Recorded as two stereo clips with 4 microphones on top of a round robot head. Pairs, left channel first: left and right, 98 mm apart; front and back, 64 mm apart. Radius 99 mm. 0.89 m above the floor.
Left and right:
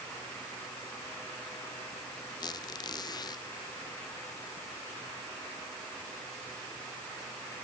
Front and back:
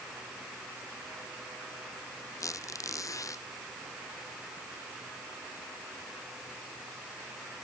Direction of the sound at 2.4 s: 35° left.